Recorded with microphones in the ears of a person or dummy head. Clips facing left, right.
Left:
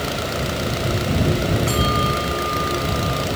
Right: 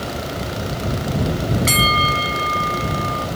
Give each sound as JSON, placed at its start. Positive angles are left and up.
{"t": 1.7, "sound": "a bell", "side_deg": -20}